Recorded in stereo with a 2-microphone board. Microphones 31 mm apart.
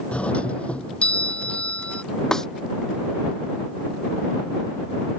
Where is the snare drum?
20° left (ahead or behind).